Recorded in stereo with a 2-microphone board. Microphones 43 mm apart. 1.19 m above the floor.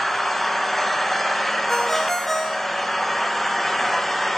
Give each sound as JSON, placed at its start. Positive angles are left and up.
{"t": 0.0, "sound": "an engine running", "side_deg": 5, "distance_m": 0.8}
{"t": 1.7, "sound": "a ringtone", "side_deg": 10, "distance_m": 1.3}